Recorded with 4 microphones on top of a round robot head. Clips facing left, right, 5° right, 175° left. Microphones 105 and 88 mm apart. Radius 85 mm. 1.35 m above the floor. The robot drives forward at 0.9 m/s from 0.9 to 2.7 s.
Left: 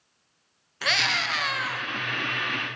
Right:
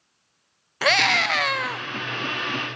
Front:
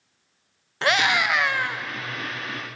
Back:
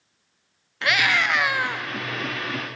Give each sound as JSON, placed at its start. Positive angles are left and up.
{"t": 0.8, "sound": "a scream", "azimuth_deg": -60, "distance_m": 0.9}